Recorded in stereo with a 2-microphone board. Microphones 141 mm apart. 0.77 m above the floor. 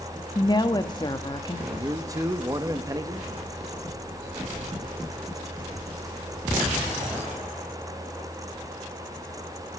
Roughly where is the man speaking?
Right.